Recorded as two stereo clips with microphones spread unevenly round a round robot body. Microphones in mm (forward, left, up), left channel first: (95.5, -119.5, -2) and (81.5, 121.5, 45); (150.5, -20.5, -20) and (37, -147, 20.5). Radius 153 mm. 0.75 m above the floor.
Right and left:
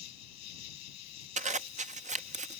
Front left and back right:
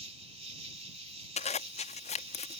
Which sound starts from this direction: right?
An insect, at 0.0 s.